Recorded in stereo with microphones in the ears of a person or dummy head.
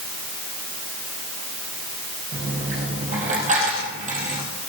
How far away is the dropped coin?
About 3.5 m.